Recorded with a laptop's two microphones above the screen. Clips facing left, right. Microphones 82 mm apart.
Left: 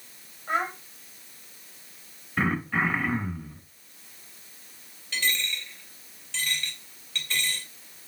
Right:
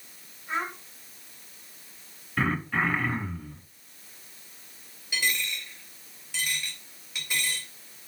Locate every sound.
0.5 s a child speaking: 50° left (ahead or behind), 3.5 m
2.4 s throat clearing: 5° left (ahead or behind), 2.5 m
5.1 s a dropped coin: 10° right (ahead or behind), 2.5 m